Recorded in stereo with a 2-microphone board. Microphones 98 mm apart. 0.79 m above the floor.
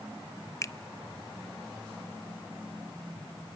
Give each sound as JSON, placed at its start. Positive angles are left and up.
{"t": 0.6, "sound": "a finger snap", "side_deg": 30, "distance_m": 0.6}